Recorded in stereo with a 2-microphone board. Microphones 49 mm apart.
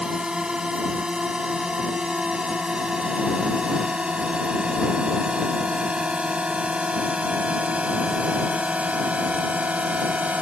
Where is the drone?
15° right (ahead or behind); by 10.4 s 30° right (ahead or behind).